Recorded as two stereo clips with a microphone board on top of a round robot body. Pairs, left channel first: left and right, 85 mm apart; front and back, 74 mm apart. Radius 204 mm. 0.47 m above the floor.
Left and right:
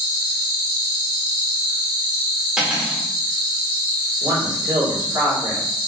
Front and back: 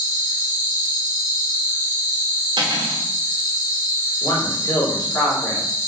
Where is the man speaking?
50° right, 1.7 m.